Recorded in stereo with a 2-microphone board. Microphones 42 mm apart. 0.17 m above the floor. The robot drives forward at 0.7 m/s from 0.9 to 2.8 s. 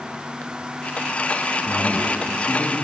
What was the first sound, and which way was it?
A man speaking, 35° left (ahead or behind).